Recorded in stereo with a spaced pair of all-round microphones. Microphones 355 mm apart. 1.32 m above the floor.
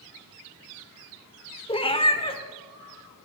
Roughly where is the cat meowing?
Centre.